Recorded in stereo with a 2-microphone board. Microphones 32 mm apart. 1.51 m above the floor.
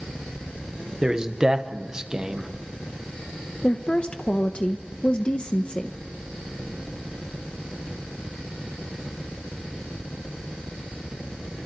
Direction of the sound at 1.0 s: 20° right (ahead or behind).